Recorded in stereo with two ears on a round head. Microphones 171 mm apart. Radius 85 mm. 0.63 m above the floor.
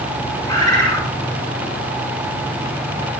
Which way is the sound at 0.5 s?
25° left (ahead or behind).